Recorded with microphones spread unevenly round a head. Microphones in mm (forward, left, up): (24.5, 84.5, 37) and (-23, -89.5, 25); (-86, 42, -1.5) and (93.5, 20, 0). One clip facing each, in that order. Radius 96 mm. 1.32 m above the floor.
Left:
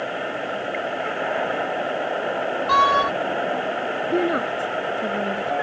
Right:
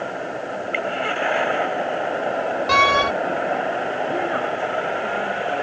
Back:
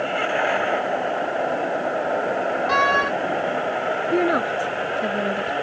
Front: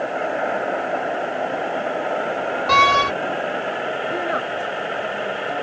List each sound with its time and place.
2.7 s a door slam: 45° right
4.1 s a woman speaking: 125° left